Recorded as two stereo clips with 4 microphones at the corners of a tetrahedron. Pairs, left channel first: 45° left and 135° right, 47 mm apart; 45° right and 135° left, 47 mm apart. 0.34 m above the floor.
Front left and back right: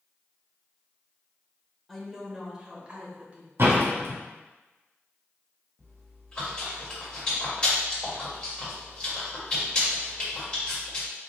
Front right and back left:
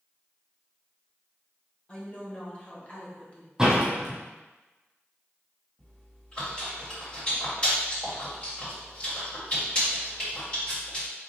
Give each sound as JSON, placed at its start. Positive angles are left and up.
{"t": 1.9, "sound": "a woman speaking", "azimuth_deg": -40, "distance_m": 1.1}
{"t": 3.6, "sound": "a door slam", "azimuth_deg": -150, "distance_m": 1.6}
{"t": 5.8, "sound": "chewing", "azimuth_deg": -10, "distance_m": 1.8}